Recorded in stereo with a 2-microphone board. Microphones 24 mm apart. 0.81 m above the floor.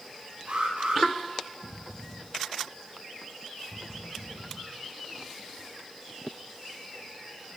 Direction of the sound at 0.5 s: 65° right (ahead or behind).